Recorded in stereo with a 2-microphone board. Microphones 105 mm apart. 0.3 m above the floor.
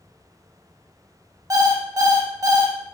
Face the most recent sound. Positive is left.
turn(degrees=-35)  # may be behind; listen again after turning